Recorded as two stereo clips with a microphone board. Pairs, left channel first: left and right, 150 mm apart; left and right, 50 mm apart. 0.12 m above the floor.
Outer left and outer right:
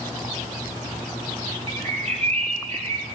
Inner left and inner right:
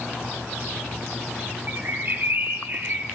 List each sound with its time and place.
1.7 s a bird: 45° right (ahead or behind), 0.8 m